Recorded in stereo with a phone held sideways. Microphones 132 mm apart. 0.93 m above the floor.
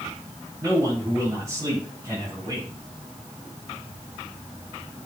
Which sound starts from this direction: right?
A man speaking, at 0.6 s.